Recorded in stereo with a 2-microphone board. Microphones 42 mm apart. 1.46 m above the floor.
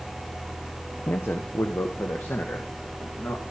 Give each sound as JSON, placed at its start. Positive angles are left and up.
{"t": 1.1, "sound": "a man speaking", "side_deg": 80, "distance_m": 0.6}